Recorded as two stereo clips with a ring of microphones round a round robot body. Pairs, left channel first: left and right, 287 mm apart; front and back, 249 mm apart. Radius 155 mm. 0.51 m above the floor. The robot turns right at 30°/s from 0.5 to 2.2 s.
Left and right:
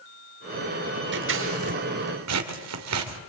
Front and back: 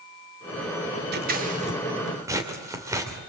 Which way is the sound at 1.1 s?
135° right.